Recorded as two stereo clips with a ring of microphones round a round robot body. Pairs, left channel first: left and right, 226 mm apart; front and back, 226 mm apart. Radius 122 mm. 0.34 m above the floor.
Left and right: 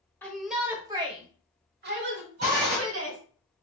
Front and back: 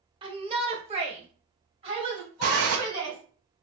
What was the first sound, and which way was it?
A shout, 160° left.